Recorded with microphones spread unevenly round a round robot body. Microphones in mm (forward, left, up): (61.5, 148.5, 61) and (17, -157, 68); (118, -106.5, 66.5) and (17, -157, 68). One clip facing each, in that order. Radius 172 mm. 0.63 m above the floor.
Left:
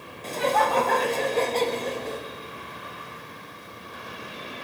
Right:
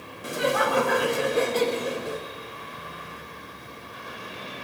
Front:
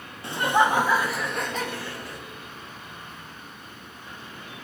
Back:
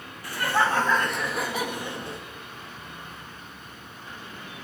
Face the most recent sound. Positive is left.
turn(degrees=-170)